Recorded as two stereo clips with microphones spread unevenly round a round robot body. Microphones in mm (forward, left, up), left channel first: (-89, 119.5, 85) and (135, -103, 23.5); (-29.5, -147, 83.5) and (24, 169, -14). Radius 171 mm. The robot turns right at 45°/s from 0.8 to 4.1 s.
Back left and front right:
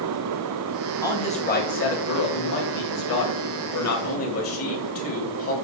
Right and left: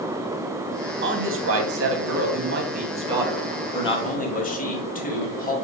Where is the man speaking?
45° left, 2 m; by 5.5 s 175° right, 2 m.